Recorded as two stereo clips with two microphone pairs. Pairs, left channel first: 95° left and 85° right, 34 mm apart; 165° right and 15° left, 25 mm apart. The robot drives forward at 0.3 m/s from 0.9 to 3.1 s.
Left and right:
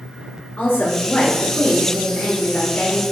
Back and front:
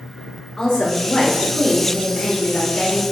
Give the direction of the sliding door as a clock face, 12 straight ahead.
I don't hear a sliding door.